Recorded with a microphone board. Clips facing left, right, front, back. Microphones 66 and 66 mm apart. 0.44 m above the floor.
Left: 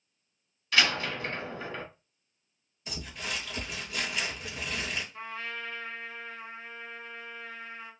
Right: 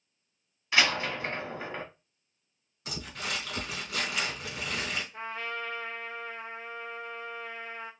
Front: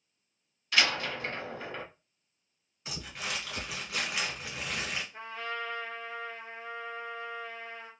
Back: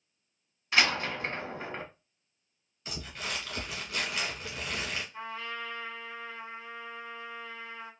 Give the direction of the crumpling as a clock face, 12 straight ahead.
2 o'clock.